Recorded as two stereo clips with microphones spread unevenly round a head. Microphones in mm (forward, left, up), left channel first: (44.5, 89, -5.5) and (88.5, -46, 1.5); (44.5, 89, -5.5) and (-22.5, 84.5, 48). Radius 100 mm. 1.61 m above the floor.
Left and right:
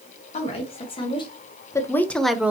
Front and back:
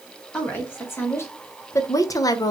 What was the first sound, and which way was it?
A woman speaking, 60° left.